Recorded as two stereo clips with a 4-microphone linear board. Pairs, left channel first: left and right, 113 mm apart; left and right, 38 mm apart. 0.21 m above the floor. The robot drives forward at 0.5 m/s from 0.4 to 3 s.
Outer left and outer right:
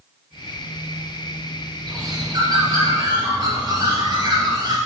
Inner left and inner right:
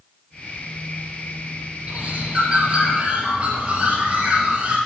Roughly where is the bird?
Right.